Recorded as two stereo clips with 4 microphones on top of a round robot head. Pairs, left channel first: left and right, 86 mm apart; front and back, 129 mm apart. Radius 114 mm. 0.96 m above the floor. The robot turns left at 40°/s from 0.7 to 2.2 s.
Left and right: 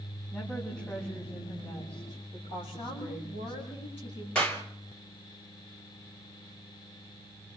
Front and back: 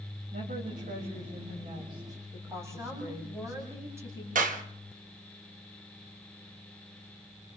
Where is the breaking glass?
I don't hear breaking glass.